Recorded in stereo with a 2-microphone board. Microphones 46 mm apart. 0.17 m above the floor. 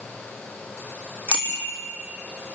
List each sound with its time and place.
1.3 s a bicycle bell: 30° left (ahead or behind), 5.5 m